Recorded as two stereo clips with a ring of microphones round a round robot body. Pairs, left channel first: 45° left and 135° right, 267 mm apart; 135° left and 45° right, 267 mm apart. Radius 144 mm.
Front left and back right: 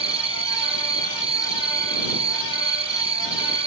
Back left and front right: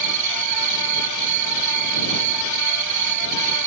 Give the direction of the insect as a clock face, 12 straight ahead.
2 o'clock.